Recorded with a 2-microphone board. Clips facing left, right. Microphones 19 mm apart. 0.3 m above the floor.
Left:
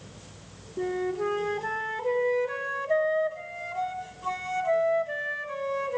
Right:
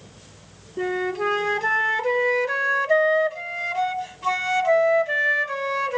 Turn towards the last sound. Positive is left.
turn(degrees=-65)  # may be behind; listen again after turning